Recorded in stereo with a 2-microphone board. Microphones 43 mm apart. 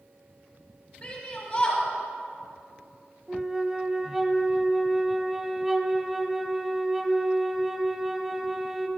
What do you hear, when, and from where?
1.0 s a shout: 45° left (ahead or behind), 6 m
3.3 s a flute: 5° right (ahead or behind), 0.8 m